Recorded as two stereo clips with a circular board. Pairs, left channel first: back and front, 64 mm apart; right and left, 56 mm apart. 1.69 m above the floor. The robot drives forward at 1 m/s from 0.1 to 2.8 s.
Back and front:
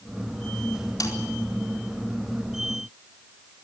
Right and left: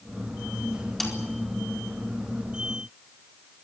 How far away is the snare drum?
About 4 m.